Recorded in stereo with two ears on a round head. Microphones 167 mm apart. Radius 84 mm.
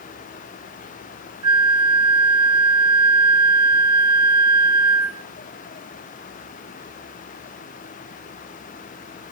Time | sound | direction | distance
1.4 | a flute | 25° right (ahead or behind) | 0.9 m